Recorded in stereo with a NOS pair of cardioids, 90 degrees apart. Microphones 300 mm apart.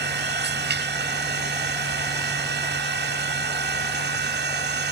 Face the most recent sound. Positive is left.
turn(degrees=-35)